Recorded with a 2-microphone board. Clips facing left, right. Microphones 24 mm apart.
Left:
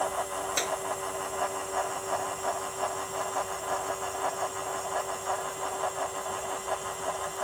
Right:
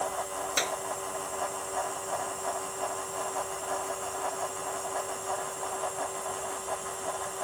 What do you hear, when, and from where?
0.6 s a clap: 10° right (ahead or behind)